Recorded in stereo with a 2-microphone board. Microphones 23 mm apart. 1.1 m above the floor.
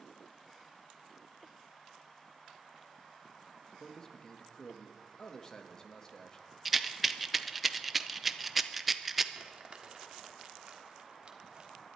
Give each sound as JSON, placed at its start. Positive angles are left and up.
{"t": 3.8, "sound": "a man speaking", "side_deg": 20, "distance_m": 1.4}
{"t": 6.7, "sound": "a rattle", "side_deg": -10, "distance_m": 0.5}
{"t": 9.3, "sound": "crumpling", "side_deg": -45, "distance_m": 1.5}